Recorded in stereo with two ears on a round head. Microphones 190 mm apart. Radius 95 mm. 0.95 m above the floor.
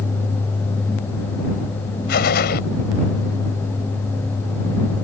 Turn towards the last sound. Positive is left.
turn(degrees=50)  # may be behind; listen again after turning